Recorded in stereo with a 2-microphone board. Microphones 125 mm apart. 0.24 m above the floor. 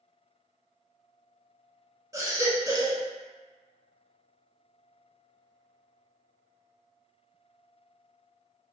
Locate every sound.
2.1 s a baby crying: 25° right (ahead or behind), 0.6 m